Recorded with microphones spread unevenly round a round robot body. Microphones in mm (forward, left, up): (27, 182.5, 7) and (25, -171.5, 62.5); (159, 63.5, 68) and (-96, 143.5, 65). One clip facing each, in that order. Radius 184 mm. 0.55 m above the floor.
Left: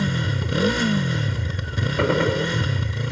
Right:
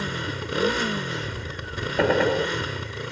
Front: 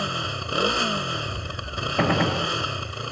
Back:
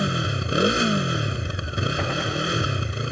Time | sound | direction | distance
0.0 | a motorcycle | 95° left | ?
2.0 | a gunshot | 5° left | ?